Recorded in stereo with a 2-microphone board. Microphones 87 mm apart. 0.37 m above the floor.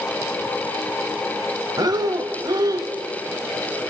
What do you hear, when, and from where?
1.8 s breathing: 50° right (ahead or behind), 1.4 m